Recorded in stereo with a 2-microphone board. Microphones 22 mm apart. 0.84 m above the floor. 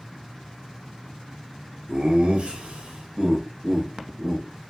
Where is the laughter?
40° right (ahead or behind), 0.8 m; by 4.4 s 30° right (ahead or behind), 1.4 m.